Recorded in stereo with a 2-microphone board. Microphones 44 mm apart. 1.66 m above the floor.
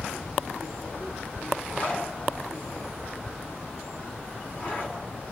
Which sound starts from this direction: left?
A zipper, at 1.7 s.